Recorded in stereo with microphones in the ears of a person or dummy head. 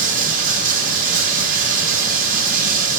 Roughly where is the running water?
Right.